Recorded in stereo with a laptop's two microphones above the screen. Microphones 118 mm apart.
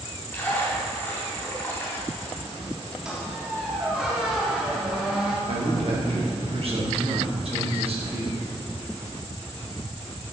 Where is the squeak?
5° right (ahead or behind), 1.1 m.